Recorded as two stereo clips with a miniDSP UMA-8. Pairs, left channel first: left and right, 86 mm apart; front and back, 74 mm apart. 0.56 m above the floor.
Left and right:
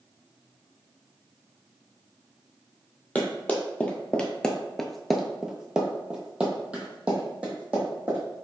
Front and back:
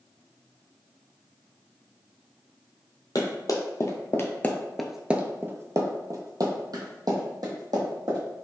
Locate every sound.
3.1 s running footsteps: 20° left, 1.0 m; by 8.2 s 165° right, 1.9 m